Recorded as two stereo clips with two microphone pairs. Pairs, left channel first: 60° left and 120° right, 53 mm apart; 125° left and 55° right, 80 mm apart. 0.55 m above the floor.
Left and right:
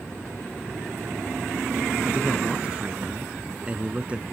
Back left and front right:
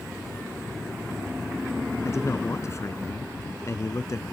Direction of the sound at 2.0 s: 175° left.